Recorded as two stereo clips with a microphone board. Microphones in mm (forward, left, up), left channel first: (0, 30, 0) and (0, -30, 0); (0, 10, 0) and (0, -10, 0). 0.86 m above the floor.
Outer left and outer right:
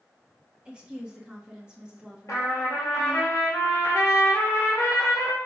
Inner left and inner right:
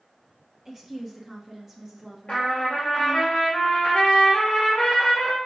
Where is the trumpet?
65° left (ahead or behind), 2.5 m.